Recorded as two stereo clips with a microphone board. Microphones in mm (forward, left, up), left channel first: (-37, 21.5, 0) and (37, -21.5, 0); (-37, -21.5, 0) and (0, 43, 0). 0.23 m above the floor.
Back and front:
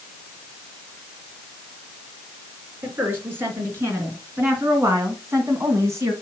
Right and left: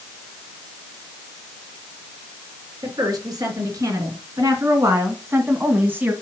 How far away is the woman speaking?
About 3.5 m.